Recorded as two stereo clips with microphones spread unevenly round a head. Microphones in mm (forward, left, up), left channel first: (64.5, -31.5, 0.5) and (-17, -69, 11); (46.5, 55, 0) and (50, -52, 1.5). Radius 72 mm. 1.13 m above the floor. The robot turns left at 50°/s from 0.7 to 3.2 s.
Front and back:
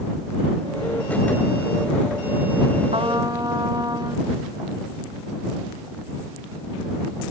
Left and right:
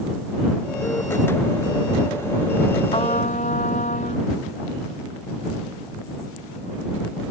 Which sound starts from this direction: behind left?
A trumpet, at 2.9 s.